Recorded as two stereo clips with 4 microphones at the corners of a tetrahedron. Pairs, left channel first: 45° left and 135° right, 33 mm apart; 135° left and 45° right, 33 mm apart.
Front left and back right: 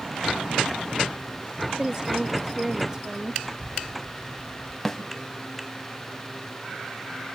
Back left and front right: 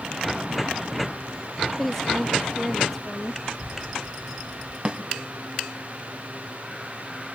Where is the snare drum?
30° right, 1.8 m.